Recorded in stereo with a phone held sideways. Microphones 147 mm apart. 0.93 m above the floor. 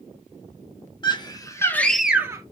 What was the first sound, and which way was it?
A scream, 30° left (ahead or behind).